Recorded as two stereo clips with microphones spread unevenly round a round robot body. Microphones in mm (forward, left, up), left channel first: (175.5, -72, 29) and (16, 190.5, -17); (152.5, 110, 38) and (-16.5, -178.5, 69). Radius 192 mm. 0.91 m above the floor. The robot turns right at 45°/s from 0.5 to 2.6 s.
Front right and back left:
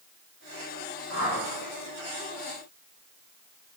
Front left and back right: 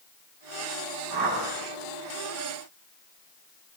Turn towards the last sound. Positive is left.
turn(degrees=-40)